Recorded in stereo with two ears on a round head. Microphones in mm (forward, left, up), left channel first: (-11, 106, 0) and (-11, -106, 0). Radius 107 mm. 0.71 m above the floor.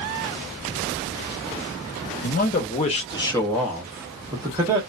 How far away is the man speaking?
About 0.9 m.